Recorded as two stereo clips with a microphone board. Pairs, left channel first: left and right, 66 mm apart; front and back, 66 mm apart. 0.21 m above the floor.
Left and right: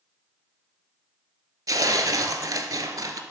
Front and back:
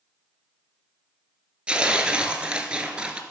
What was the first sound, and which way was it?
Tearing paper, 105° right.